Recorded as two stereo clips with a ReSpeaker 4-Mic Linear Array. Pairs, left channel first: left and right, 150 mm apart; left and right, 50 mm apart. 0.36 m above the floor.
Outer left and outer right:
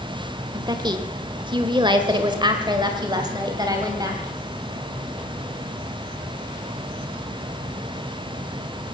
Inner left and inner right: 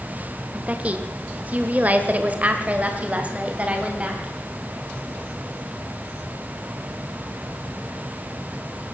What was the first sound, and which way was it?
A woman speaking, 30° right (ahead or behind).